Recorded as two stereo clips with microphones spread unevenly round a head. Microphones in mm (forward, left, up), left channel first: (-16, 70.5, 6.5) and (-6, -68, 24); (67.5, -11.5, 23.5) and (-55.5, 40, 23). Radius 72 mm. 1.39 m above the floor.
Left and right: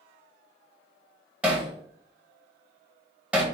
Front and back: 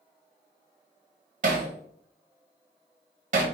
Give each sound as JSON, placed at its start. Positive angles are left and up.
{"t": 1.4, "sound": "hammering", "azimuth_deg": -165, "distance_m": 0.9}